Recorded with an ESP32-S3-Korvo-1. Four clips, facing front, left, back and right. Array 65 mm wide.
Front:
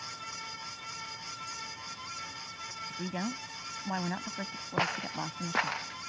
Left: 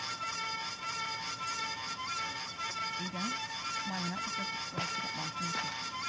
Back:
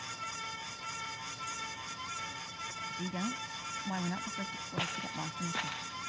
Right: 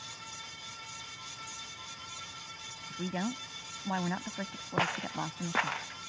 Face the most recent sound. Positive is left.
turn(degrees=-45)